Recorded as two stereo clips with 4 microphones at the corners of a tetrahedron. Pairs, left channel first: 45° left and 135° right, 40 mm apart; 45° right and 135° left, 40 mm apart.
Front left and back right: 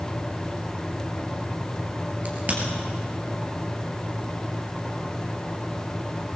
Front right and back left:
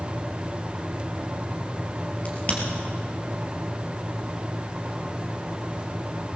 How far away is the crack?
About 2.5 m.